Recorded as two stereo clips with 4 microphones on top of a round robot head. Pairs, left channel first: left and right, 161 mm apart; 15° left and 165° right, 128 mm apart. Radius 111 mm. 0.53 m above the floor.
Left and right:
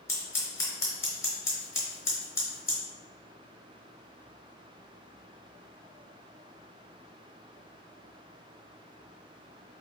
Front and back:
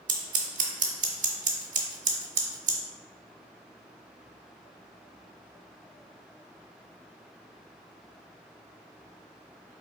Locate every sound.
0.1 s scissors: 165° left, 0.9 m